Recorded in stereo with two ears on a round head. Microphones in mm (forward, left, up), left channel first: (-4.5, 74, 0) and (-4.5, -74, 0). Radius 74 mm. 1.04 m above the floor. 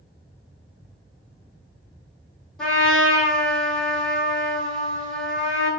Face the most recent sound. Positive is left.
turn(degrees=5)  # may be behind; listen again after turning